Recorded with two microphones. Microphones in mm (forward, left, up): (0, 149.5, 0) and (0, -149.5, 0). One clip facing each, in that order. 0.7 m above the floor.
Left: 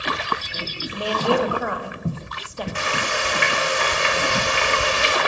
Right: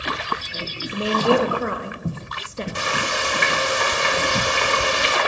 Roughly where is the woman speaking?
Right.